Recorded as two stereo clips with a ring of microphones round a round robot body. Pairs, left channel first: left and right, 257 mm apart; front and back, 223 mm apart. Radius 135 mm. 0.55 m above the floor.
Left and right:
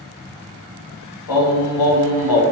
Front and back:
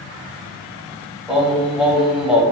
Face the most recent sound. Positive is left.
turn(degrees=90)